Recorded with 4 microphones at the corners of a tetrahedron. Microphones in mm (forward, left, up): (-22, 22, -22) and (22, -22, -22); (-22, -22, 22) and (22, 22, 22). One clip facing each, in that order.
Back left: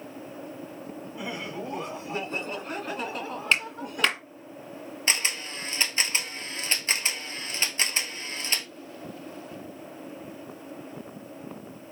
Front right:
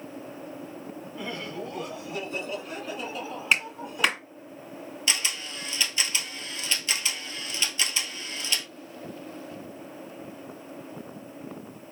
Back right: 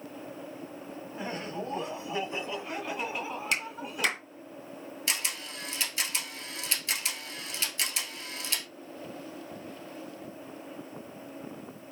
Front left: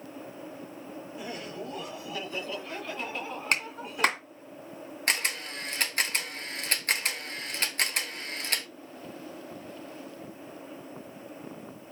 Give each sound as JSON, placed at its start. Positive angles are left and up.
{"t": 1.1, "sound": "laughter", "azimuth_deg": -150, "distance_m": 1.2}
{"t": 3.5, "sound": "a clap", "azimuth_deg": 35, "distance_m": 2.0}
{"t": 5.1, "sound": "a camera shutter", "azimuth_deg": 85, "distance_m": 1.1}